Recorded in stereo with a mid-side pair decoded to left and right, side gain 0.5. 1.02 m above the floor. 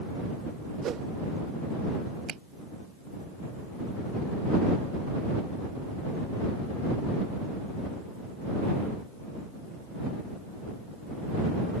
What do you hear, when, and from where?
0.8 s a whoosh: 60° right
2.3 s a finger snap: 60° right